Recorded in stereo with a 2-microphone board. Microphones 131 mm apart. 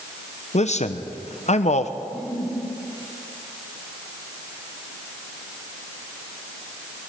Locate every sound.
0.5 s a man speaking: 60° left (ahead or behind), 0.7 m
2.0 s a giggle: 5° left (ahead or behind), 4 m